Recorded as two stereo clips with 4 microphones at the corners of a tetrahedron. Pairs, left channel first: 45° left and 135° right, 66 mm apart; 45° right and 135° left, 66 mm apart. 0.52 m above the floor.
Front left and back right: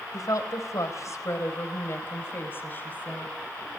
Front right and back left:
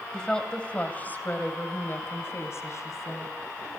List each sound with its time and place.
0.1 s a woman speaking: 35° left, 3 m; by 3.3 s 15° right, 4 m